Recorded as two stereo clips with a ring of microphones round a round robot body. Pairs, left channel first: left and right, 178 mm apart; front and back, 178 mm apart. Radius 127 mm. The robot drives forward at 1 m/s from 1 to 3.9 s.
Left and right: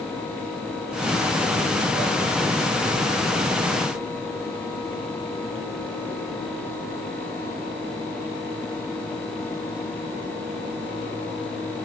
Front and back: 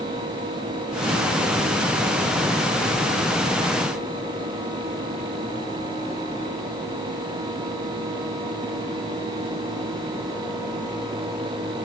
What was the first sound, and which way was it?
Only background noise.